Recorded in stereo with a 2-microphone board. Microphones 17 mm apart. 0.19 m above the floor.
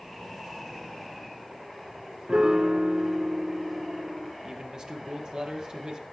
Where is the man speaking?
50° right (ahead or behind), 5.5 m.